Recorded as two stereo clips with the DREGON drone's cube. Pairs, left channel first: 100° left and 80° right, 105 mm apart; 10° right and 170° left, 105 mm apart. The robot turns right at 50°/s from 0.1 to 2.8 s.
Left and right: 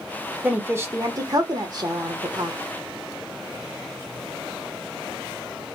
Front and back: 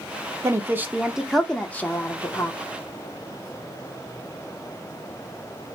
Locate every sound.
0.4 s a woman speaking: 145° right, 0.8 m; by 2.6 s 40° right, 0.8 m